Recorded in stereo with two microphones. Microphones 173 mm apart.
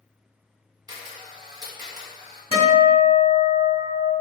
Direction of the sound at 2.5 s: 35° right (ahead or behind).